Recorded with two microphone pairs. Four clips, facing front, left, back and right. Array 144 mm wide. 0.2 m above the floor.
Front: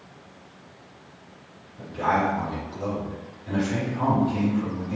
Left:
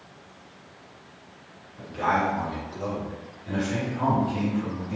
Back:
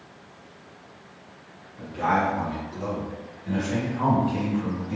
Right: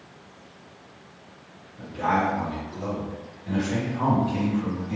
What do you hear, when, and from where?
1.8 s a man speaking: 120° left, 1.8 m; by 5.0 s 95° right, 1.5 m